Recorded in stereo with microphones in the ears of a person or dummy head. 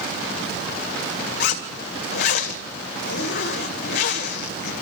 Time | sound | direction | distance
1.4 | a zipper | 60° left (ahead or behind) | 1.6 m